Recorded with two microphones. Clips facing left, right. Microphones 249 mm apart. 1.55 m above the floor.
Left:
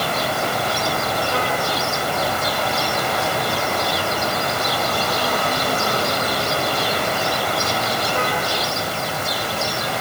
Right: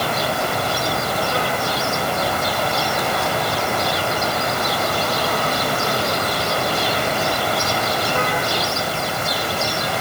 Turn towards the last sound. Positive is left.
No sound to turn to.